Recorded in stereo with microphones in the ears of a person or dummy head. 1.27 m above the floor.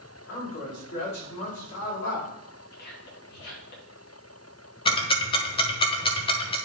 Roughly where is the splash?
I don't hear a splash.